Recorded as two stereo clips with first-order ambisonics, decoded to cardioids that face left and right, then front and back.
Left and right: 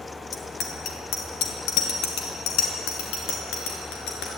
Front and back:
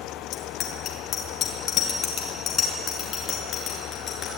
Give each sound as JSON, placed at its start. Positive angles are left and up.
{"t": 0.3, "sound": "a bicycle bell", "azimuth_deg": 45, "distance_m": 2.5}